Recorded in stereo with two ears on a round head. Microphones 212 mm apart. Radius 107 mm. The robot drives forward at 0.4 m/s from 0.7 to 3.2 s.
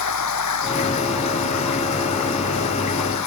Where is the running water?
85° left.